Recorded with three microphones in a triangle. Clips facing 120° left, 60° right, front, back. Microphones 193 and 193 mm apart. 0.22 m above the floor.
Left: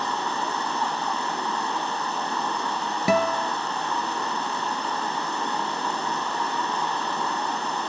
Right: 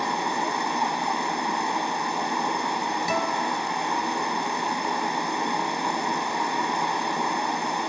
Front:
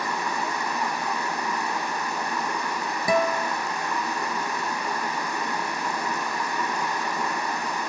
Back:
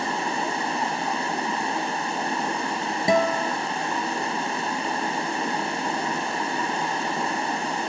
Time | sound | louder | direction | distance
0.0 | running water | right 2 dB, back 2 dB | 130° right | 1.0 m
3.1 | a guitar | left 8 dB, back 2 dB | 115° left | 0.9 m